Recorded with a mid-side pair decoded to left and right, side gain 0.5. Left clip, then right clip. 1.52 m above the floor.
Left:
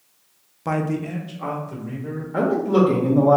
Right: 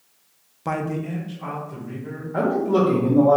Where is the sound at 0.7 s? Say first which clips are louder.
Left 2 dB; 5° right, 0.6 m; by 2.2 s 65° left, 2.5 m.